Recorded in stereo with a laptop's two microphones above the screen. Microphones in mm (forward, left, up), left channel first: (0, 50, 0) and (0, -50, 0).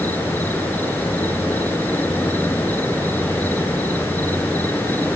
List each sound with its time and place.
0.0 s an insect: 20° left (ahead or behind)